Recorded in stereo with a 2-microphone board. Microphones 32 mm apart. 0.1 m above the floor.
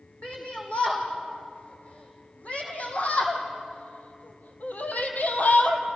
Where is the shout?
45° left (ahead or behind), 5 m; by 5.8 s 65° left (ahead or behind), 2.5 m.